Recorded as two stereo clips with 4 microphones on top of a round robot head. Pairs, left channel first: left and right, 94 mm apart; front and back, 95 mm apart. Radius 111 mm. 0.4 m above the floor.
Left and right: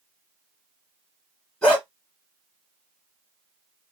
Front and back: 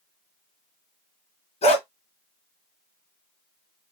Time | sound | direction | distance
1.6 | a dog barking | 5° left | 1.9 m